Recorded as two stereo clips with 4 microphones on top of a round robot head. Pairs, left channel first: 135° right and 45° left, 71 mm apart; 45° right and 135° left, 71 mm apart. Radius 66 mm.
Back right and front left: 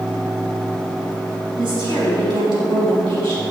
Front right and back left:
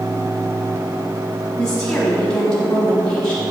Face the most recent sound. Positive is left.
turn(degrees=35)